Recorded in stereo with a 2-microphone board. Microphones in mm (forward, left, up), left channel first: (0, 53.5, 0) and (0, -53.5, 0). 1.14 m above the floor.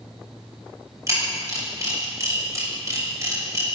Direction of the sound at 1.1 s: 30° right (ahead or behind).